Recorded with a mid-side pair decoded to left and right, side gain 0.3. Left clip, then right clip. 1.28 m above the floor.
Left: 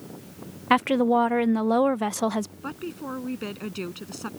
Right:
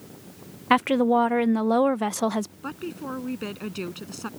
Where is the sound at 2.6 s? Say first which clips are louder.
Even; 5° right.